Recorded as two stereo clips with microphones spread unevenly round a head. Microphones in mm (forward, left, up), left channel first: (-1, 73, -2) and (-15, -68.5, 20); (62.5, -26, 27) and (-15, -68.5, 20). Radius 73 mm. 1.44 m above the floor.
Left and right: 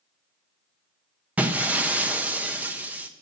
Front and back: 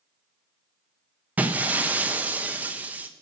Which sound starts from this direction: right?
Breaking glass, at 1.4 s.